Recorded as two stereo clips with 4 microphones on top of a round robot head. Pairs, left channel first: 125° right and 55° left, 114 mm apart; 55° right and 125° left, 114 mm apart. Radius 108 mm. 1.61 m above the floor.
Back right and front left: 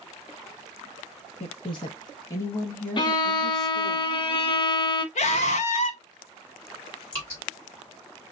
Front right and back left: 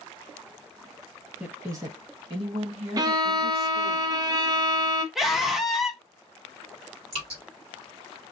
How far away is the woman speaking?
About 0.9 m.